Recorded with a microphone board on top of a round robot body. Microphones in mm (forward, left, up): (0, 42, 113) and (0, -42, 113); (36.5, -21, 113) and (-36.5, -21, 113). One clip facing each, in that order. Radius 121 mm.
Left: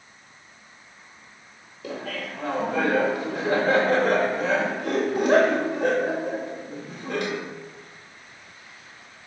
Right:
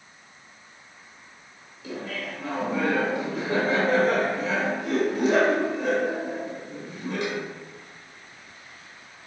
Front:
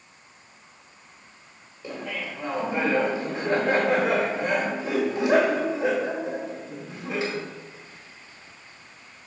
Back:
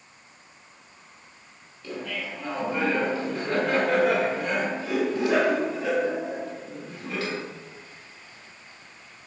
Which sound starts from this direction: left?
Laughter, at 1.8 s.